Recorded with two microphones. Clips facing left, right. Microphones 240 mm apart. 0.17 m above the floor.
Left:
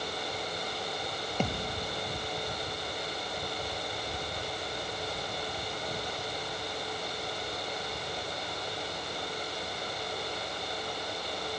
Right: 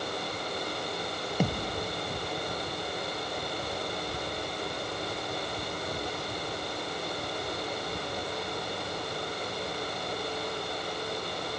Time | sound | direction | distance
1.4 | a thud | 10° right (ahead or behind) | 1.7 m